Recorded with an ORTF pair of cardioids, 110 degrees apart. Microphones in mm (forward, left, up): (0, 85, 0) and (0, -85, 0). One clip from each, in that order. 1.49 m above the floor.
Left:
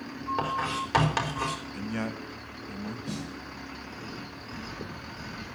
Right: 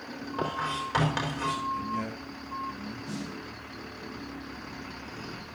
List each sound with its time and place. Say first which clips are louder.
0.4 s writing: even; 35° left, 4 m
1.7 s a man speaking: right 2 dB; 50° left, 1.4 m
3.1 s a snare drum: even; 40° left, 7.5 m